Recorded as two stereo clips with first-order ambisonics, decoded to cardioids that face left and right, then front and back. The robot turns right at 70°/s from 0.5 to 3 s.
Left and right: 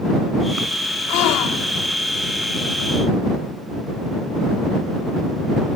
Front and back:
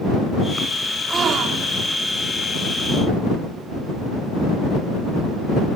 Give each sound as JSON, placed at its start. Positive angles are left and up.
{"t": 1.1, "sound": "a gasp", "azimuth_deg": 105}